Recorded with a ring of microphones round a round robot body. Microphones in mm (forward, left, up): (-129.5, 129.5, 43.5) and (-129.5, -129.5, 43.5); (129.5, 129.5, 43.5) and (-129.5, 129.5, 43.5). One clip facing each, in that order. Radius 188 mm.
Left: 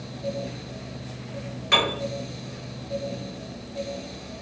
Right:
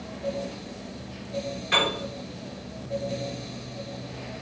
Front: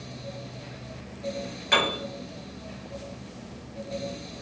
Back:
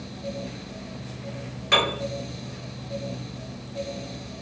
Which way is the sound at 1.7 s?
100° left.